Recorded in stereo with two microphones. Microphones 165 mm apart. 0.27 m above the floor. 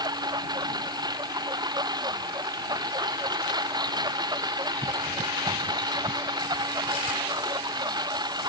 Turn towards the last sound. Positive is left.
turn(degrees=-25)  # may be behind; listen again after turning